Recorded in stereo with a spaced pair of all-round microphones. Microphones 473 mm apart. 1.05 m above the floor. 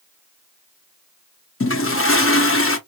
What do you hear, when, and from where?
1.6 s a toilet flushing: 30° left (ahead or behind), 0.7 m